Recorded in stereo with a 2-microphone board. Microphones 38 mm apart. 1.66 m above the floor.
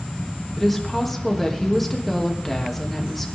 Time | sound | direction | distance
0.6 | a woman speaking | centre (ahead or behind) | 3 m